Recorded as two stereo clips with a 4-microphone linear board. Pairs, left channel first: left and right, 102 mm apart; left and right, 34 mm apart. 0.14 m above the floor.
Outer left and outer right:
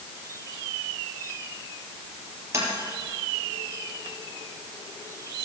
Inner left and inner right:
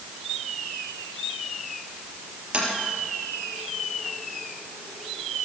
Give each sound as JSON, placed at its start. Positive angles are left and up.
{"t": 2.5, "sound": "tapping", "side_deg": -30, "distance_m": 4.0}